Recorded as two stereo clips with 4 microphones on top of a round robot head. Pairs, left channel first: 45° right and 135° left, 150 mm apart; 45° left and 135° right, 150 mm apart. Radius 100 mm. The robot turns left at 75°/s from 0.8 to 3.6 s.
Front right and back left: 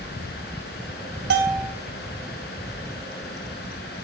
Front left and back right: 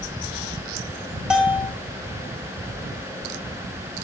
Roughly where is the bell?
Behind left.